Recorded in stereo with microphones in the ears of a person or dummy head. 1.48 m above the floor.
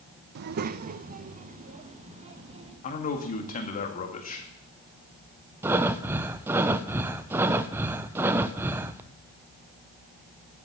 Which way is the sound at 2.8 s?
40° left (ahead or behind).